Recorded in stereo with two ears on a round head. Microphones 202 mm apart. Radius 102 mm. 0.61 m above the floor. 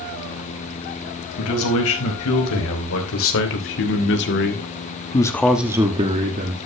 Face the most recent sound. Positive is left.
turn(degrees=-40)  # may be behind; listen again after turning